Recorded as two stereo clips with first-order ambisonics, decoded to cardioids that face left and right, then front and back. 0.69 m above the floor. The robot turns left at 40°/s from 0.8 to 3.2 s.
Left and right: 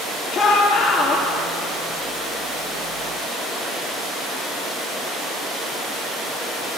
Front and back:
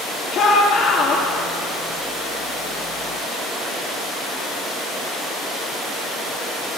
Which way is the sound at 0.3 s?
35° left.